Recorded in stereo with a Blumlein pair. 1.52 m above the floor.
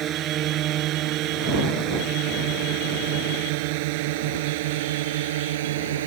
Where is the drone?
30° right; by 6.1 s 60° right.